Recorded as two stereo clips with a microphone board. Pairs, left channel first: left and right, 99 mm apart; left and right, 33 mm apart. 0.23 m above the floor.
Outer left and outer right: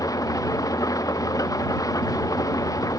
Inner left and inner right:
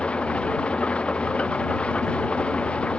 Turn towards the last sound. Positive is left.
turn(degrees=35)  # may be behind; listen again after turning